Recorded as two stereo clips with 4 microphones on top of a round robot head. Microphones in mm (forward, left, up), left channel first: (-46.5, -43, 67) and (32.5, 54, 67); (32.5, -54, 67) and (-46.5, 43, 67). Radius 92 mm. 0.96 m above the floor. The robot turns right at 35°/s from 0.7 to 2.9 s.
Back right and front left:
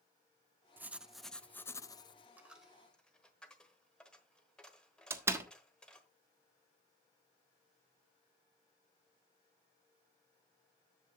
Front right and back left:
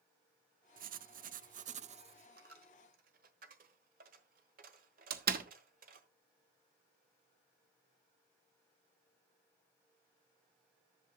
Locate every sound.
0.8 s writing: 125° left, 0.6 m; by 2.3 s straight behind, 0.6 m
2.4 s a dropped coin: 130° left, 1.1 m; by 6.1 s 145° left, 1.1 m
5.1 s a door slam: 125° left, 1.2 m